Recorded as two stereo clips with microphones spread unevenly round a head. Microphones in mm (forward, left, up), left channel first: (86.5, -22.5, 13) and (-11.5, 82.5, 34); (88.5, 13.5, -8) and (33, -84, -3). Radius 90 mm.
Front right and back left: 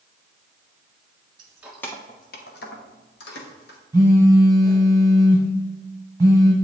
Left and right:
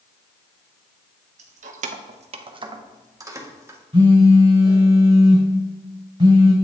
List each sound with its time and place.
1.4 s keys jangling: 165° right, 0.7 m; by 3.8 s 55° right, 1.7 m
3.9 s a phone buzzing: 160° right, 1.5 m